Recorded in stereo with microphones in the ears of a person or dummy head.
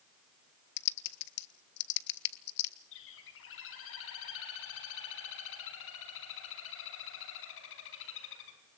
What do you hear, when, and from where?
0.8 s typing on a keyboard: 60° left (ahead or behind), 1.8 m
2.9 s a bird: 75° left (ahead or behind), 5 m